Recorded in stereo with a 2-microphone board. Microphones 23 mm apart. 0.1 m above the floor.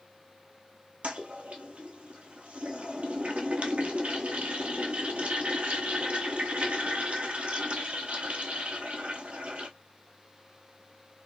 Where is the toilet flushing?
65° right (ahead or behind), 0.6 m.